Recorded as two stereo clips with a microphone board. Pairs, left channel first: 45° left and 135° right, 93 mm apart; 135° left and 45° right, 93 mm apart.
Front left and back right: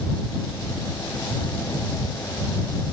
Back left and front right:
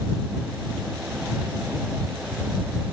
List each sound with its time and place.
Only background noise.